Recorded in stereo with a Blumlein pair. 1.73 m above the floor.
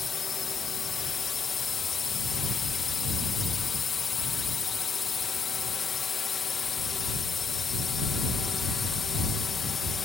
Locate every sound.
0.0 s a drone: 15° left